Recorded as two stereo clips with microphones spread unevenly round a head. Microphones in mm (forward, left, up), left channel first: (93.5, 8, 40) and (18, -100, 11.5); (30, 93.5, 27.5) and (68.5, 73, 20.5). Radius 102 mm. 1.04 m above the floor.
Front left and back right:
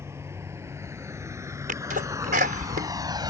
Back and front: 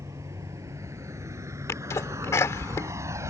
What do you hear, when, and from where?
0.0 s a vehicle: 55° right; by 3.3 s 65° right
1.7 s a sneeze: 165° right